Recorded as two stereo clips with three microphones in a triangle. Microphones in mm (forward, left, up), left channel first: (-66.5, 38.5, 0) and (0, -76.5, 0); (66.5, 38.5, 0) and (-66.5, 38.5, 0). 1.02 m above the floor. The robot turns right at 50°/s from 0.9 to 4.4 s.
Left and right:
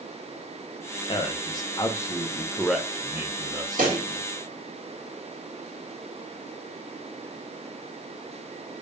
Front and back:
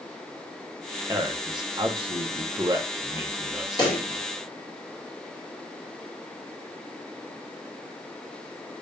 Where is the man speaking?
130° left, 0.7 m; by 4.3 s 70° right, 0.7 m.